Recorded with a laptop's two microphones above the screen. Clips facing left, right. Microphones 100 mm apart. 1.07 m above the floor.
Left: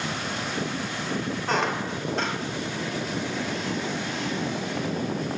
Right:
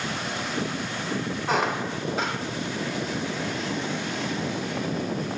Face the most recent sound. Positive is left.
turn(degrees=-5)  # may be behind; listen again after turning